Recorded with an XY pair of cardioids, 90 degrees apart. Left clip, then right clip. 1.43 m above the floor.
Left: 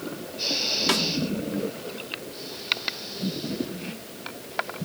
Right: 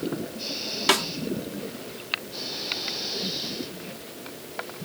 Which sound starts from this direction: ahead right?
A snare drum, at 0.9 s.